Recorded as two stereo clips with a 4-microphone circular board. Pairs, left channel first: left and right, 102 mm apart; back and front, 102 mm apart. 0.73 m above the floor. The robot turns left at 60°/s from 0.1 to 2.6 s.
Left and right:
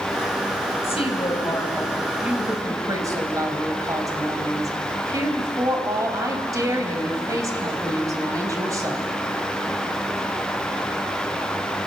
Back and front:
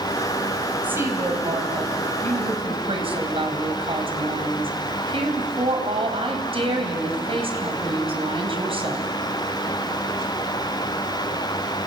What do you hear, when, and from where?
0.8 s a woman speaking: 75° left, 3.5 m; by 9.1 s 30° right, 3.5 m